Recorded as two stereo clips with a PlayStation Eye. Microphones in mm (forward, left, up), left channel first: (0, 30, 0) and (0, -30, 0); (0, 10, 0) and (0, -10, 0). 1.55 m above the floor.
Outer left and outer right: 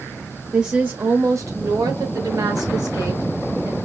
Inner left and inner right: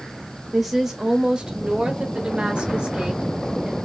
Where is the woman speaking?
15° right (ahead or behind), 0.7 m; by 3.8 s 70° right (ahead or behind), 2 m.